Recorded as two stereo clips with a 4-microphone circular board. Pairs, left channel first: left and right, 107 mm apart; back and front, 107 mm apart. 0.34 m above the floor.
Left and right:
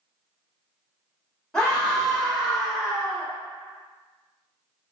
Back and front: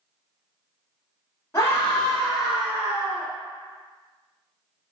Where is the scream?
165° left, 0.8 m; by 3.3 s 10° right, 0.9 m.